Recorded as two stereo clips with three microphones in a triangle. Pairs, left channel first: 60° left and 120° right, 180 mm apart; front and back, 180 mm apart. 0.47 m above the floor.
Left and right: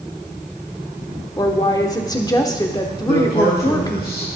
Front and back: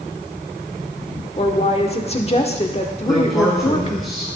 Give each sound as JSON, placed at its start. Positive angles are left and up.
{"t": 1.4, "sound": "a woman speaking", "azimuth_deg": 10, "distance_m": 1.2}
{"t": 3.1, "sound": "a man speaking", "azimuth_deg": 90, "distance_m": 6.0}